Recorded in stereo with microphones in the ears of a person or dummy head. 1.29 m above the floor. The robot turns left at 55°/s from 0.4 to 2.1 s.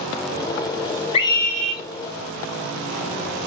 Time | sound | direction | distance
1.1 | a scream | 40° left | 3.5 m